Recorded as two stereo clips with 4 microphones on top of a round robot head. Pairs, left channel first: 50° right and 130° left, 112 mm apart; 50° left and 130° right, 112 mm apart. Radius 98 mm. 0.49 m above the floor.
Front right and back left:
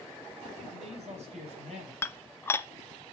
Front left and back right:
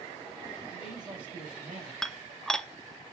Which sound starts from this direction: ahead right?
Dishes clattering, at 2.0 s.